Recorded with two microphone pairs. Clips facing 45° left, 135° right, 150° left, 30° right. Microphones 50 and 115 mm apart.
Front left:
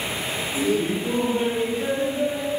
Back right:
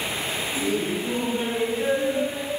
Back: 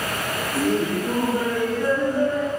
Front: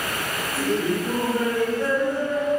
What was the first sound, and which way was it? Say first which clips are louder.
Laughter: front left 4 dB, back 1 dB; 100° left.